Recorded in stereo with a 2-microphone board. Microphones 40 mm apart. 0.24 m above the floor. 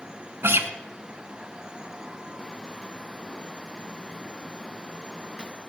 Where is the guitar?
70° right (ahead or behind), 1.1 m.